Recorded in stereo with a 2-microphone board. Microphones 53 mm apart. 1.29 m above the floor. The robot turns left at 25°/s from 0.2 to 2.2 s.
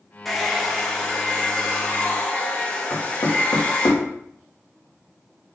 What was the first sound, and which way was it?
A hair dryer, 170° left.